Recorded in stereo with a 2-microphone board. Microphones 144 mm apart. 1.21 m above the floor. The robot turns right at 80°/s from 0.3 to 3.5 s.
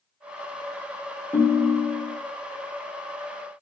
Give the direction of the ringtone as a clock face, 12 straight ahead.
11 o'clock.